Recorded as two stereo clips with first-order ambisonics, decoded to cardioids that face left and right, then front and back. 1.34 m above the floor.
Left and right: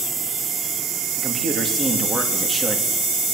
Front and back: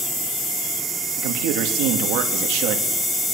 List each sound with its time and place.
1.2 s a man speaking: 165° right, 2.5 m